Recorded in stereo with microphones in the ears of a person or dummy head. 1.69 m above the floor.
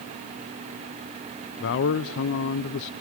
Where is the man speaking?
60° left (ahead or behind), 0.6 m.